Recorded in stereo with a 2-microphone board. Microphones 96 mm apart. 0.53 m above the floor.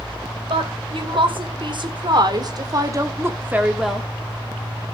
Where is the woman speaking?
65° right (ahead or behind), 3 m; by 4.1 s centre (ahead or behind), 1.3 m.